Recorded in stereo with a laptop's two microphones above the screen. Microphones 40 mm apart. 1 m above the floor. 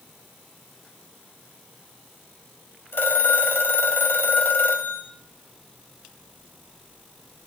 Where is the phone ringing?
80° left, 3 m.